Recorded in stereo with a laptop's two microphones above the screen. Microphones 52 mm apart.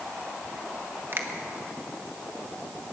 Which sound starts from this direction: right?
A finger snap, at 1.1 s.